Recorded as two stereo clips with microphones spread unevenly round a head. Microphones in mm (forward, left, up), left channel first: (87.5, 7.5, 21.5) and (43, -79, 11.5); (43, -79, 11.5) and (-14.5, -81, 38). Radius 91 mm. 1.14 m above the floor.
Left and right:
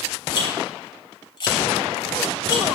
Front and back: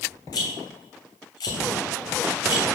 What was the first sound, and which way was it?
A rattle, 25° left.